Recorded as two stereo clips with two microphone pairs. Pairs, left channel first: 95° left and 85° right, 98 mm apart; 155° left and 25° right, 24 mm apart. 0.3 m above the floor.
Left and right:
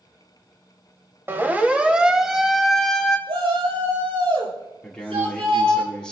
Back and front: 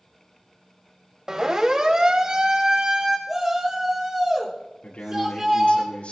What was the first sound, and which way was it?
A siren, 45° right.